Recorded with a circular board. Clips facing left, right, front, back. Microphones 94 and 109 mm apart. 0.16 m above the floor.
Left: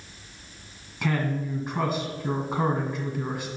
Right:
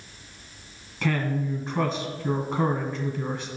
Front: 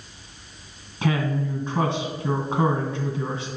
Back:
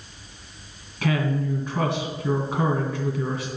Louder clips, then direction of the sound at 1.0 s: Right 1 dB, even; 20° left.